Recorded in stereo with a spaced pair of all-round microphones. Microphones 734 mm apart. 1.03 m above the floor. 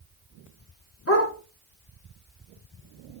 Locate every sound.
1.1 s a dog barking: 20° left (ahead or behind), 1.5 m